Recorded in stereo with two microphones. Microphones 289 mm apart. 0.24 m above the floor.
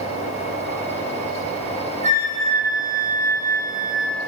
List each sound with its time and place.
2.0 s a flute: 15° left (ahead or behind), 9.5 m